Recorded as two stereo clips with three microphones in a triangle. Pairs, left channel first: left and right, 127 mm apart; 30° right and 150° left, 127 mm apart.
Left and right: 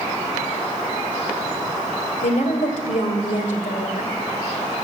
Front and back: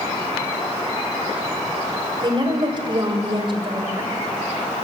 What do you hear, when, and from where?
2.2 s a woman speaking: 100° left, 2.5 m